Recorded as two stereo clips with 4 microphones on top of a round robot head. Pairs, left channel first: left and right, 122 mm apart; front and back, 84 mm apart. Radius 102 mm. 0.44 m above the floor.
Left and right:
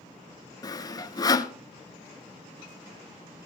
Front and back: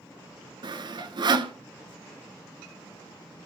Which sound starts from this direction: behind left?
Sawing, at 0.6 s.